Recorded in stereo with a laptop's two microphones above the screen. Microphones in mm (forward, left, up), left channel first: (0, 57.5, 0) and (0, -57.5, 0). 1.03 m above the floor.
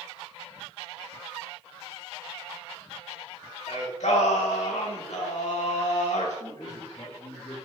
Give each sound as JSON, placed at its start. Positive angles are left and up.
{"t": 3.7, "sound": "singing", "side_deg": 85, "distance_m": 2.0}
{"t": 6.4, "sound": "a man speaking", "side_deg": 35, "distance_m": 2.5}